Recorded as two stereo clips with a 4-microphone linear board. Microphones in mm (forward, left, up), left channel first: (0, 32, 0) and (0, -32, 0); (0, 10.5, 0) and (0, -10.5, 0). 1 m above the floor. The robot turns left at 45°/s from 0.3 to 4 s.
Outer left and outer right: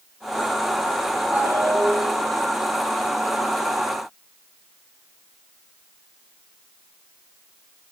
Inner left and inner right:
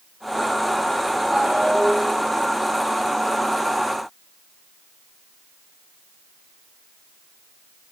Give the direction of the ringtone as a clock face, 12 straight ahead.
1 o'clock.